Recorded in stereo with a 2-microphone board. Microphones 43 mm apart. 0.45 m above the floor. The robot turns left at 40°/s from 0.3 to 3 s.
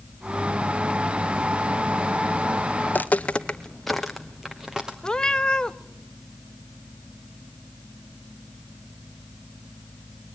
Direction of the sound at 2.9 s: 50° left (ahead or behind).